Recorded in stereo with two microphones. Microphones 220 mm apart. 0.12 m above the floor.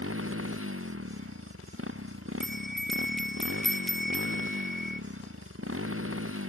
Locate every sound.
0.0 s a motorcycle: 80° right
2.4 s a bell: centre (ahead or behind)